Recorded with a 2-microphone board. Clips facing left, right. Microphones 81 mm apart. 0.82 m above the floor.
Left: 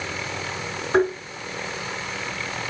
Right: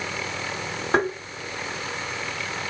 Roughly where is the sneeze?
I don't hear a sneeze.